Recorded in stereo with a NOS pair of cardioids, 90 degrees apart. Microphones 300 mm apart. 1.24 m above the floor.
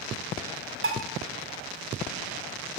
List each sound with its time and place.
0.8 s dishes clattering: 45° right, 2.5 m